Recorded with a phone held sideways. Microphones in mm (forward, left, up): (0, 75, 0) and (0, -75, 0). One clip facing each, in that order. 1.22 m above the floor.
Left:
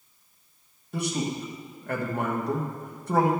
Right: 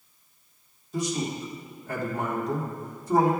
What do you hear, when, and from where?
0.9 s a man speaking: 65° left (ahead or behind), 1.1 m